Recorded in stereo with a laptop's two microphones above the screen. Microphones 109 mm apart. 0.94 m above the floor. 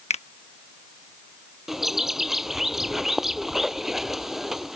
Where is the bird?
5° right (ahead or behind).